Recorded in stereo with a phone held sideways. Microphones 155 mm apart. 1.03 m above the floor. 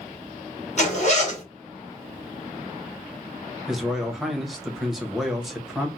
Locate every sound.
0.8 s a zipper: 50° left (ahead or behind), 1.3 m
3.7 s a man speaking: centre (ahead or behind), 0.8 m